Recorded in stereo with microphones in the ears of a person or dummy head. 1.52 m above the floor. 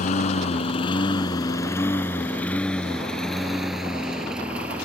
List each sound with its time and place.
0.0 s a lawn mower: 45° left (ahead or behind); by 4.9 s 10° right (ahead or behind)